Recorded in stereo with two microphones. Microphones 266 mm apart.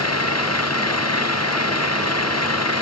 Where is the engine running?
70° left (ahead or behind).